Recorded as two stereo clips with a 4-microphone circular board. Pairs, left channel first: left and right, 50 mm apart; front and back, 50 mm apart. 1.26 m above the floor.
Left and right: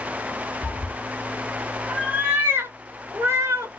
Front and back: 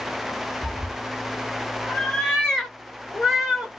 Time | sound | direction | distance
0.6 | a cat meowing | 50° left | 1.5 m